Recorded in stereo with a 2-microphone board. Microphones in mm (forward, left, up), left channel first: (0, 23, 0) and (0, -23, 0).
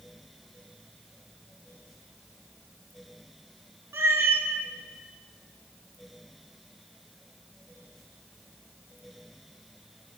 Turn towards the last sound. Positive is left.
turn(degrees=-60)  # may be behind; listen again after turning